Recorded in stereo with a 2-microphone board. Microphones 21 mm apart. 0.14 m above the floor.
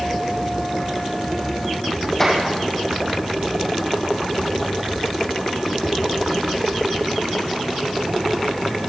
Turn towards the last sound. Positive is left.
turn(degrees=15)  # may be behind; listen again after turning